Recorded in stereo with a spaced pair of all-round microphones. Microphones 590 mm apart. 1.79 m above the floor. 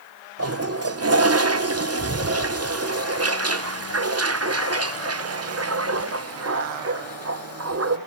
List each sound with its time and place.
0.4 s a toilet flushing: 25° right (ahead or behind), 0.8 m